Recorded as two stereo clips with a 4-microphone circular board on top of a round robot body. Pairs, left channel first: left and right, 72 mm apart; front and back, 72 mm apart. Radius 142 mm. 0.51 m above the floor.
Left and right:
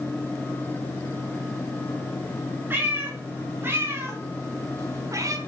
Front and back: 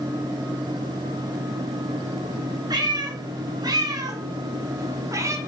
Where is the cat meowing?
155° right, 4 m; by 5.4 s 130° right, 1.9 m.